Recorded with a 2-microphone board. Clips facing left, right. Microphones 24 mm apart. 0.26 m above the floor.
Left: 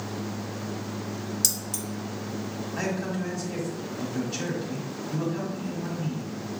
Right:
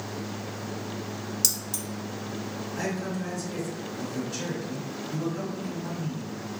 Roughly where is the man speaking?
Left.